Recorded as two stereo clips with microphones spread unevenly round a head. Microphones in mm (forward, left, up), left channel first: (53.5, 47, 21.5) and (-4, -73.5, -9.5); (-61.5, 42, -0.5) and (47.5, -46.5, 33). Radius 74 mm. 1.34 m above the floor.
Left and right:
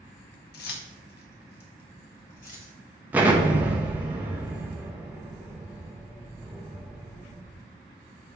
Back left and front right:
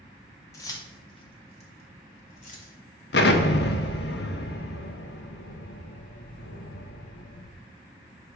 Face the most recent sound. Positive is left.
turn(degrees=160)